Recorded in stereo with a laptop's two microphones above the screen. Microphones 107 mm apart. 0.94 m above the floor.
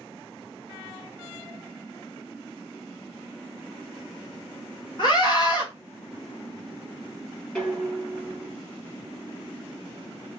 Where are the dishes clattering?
10° left (ahead or behind), 1.6 m.